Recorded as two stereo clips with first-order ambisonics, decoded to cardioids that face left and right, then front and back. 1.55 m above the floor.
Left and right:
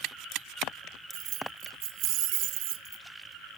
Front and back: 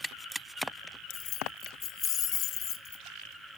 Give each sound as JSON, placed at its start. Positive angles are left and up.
{"t": 1.1, "sound": "keys jangling", "azimuth_deg": -50}